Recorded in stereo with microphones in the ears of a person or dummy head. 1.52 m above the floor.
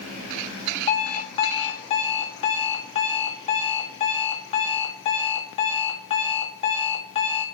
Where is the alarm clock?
30° left (ahead or behind), 1.6 m.